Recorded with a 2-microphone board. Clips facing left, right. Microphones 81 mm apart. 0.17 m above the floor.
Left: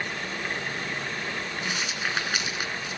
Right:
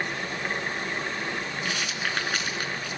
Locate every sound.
1.6 s a rattle: 10° left (ahead or behind), 2 m